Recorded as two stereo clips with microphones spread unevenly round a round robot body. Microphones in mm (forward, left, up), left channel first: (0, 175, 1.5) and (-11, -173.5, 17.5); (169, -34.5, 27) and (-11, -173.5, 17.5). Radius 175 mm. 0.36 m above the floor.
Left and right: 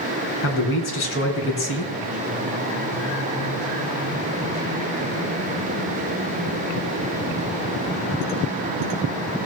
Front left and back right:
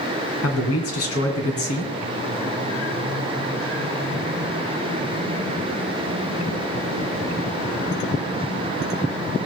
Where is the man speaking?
35° left, 3.5 m.